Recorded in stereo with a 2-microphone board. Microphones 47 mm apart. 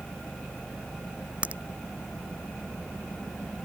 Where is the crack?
30° right (ahead or behind).